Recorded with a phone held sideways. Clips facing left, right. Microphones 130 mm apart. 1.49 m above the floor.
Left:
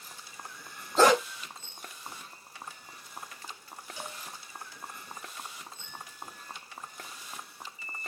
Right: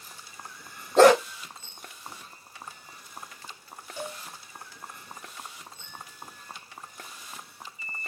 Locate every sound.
1.0 s a dog barking: 65° right (ahead or behind), 2.5 m
4.0 s a cowbell: 55° right (ahead or behind), 3 m